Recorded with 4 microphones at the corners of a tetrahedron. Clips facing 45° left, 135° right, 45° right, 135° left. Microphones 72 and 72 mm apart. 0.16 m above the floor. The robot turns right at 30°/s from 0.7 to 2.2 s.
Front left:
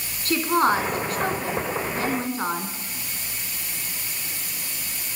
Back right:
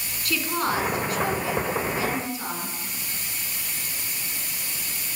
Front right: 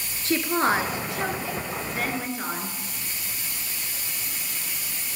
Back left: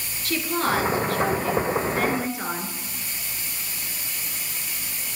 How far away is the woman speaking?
About 2 m.